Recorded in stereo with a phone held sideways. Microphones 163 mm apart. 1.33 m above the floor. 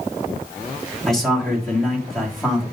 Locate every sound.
1.1 s a man speaking: 5° left (ahead or behind), 3 m